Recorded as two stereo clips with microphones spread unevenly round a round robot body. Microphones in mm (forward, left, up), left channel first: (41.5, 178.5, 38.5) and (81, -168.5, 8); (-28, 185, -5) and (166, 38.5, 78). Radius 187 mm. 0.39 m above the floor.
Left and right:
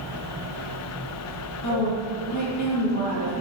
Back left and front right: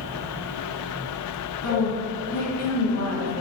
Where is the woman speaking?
145° left, 5.5 m.